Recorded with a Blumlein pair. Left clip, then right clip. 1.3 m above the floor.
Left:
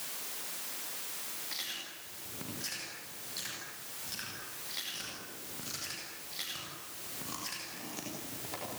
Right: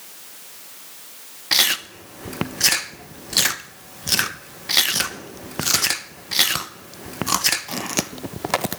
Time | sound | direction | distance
1.5 | chewing | 50° right | 1.0 m